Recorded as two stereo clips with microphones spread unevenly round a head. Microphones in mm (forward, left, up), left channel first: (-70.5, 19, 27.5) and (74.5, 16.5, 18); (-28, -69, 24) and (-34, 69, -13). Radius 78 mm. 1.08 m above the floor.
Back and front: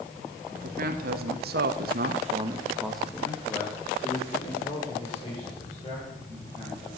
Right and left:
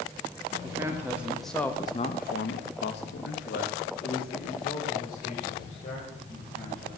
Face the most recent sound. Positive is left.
turn(degrees=-125)